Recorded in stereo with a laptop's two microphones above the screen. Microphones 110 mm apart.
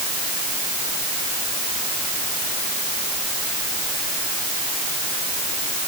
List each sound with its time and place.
Only background noise.